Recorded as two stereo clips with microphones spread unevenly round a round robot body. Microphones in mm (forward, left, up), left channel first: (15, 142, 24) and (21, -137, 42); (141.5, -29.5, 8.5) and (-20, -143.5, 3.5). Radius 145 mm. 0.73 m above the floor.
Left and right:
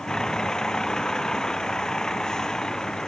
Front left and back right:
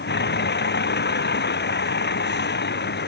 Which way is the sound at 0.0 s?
5° left.